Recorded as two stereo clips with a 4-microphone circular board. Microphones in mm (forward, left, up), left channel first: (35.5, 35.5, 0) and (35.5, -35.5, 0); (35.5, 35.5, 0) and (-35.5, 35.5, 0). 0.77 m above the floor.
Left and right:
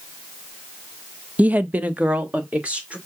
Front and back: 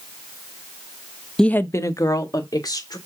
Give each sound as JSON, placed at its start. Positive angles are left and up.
{"t": 1.4, "sound": "a woman speaking", "azimuth_deg": -65, "distance_m": 0.5}